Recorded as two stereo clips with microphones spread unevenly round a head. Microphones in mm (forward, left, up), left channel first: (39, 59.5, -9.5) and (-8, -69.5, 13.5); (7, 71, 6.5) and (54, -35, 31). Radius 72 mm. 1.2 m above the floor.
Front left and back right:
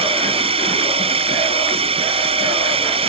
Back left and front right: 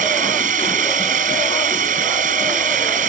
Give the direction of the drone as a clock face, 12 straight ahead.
2 o'clock.